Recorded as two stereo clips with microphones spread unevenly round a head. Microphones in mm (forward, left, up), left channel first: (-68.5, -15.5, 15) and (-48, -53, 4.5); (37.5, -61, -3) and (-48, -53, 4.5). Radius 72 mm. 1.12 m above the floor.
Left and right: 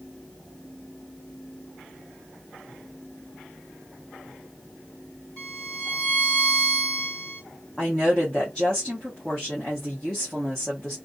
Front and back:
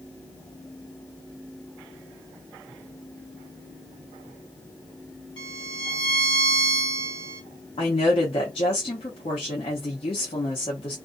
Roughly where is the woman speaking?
Ahead left.